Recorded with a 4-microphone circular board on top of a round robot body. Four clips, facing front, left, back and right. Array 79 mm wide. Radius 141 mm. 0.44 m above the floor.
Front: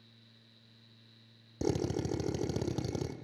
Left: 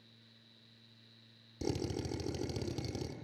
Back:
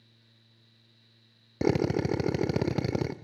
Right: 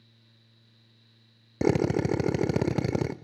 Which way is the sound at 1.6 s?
120° right.